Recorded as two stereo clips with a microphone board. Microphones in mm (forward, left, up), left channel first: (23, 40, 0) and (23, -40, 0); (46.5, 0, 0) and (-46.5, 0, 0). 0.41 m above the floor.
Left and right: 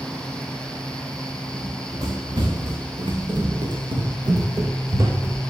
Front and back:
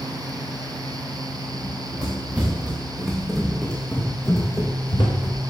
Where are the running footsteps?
115° right, 3.5 m; by 5.5 s 25° right, 2 m.